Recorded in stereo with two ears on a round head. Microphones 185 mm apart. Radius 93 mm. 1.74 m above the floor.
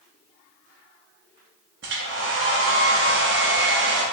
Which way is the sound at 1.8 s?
60° right (ahead or behind).